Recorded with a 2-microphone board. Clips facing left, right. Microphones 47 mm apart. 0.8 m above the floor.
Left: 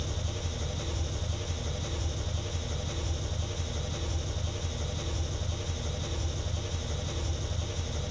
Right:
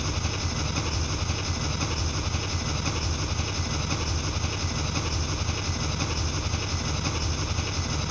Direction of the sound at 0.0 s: 75° right (ahead or behind).